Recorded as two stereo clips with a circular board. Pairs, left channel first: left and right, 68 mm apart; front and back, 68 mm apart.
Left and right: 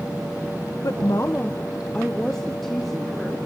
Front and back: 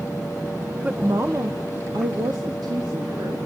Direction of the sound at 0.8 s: 110° left.